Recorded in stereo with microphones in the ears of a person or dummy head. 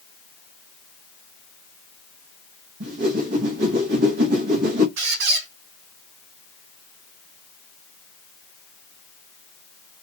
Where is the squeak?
50° right (ahead or behind), 0.5 m.